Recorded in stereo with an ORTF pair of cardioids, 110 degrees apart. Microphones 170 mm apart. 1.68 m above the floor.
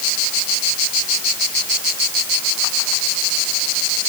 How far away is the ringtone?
I don't hear a ringtone.